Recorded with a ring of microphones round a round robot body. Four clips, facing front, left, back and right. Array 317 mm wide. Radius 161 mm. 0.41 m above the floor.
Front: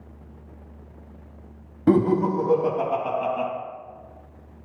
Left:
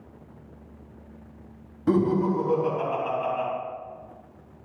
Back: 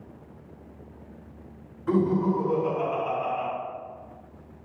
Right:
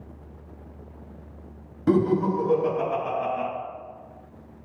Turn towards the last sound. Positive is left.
turn(degrees=-30)